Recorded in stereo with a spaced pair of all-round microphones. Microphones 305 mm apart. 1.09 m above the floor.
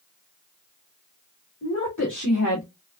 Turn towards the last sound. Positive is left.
turn(degrees=85)